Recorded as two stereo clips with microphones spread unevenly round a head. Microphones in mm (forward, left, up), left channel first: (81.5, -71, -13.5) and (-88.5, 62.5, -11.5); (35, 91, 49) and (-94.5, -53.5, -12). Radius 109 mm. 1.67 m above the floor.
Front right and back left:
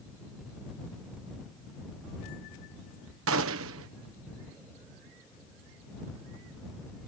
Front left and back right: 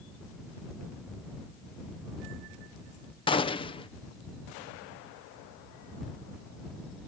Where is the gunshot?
115° left.